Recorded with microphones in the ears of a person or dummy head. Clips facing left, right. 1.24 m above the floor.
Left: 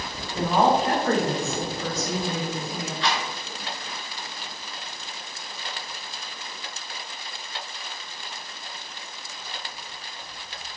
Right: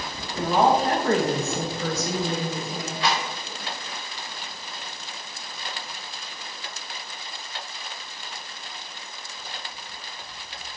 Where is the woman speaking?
20° left (ahead or behind), 0.8 m; by 2.9 s 55° right (ahead or behind), 0.9 m.